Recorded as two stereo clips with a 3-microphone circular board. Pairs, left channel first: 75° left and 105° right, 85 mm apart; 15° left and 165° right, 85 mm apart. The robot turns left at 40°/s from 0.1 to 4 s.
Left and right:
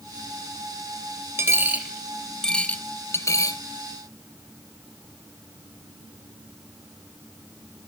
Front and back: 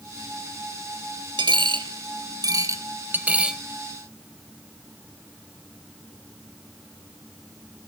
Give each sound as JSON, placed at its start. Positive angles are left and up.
{"t": 1.4, "sound": "a dropped coin", "azimuth_deg": -160, "distance_m": 0.7}